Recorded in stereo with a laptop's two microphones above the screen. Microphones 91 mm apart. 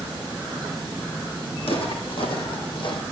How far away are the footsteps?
About 3 m.